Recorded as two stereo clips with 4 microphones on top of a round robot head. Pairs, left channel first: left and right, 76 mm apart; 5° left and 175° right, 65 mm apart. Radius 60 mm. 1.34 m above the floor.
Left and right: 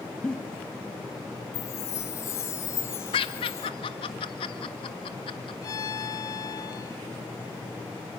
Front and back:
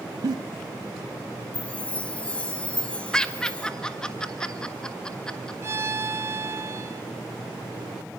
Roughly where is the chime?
Ahead left.